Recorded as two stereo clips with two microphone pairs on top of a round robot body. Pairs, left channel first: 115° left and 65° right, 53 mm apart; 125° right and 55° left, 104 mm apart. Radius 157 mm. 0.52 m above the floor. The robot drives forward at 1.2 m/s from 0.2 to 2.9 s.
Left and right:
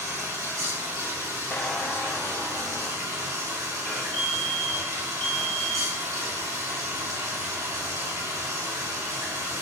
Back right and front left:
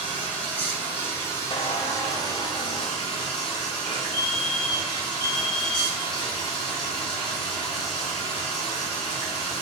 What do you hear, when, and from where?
0.0 s running water: 50° right, 5.5 m; by 9.6 s 85° right, 4 m
1.5 s a squeak: 175° right, 0.9 m; by 4.0 s straight behind, 2.5 m
4.1 s a fire alarm: 160° left, 2.5 m